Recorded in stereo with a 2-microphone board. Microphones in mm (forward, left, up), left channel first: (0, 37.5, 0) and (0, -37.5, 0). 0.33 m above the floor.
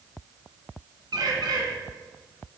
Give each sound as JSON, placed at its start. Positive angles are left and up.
{"t": 1.1, "sound": "a bird", "side_deg": -75, "distance_m": 1.5}